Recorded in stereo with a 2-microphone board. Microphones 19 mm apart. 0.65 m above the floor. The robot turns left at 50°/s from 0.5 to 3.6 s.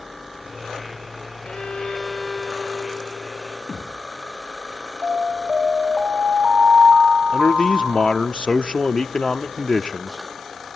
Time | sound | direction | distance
1.4 | a violin | 70° left | 2.5 m
3.7 | a thud | 25° left (ahead or behind) | 8.5 m
5.0 | an alarm | 65° right (ahead or behind) | 2.5 m
7.3 | a man speaking | 55° left (ahead or behind) | 0.9 m